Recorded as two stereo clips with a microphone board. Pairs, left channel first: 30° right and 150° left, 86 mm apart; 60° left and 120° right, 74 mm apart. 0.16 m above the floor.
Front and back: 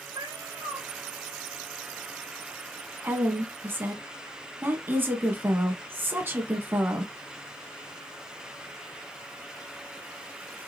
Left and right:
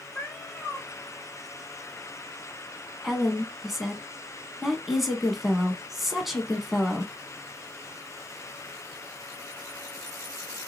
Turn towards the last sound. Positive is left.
turn(degrees=155)